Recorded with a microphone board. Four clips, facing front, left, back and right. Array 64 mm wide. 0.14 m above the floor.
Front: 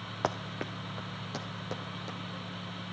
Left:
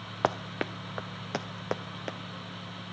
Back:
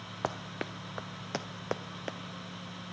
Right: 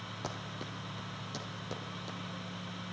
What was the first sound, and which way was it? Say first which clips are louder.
Running footsteps: left 14 dB, front 2 dB; 80° left.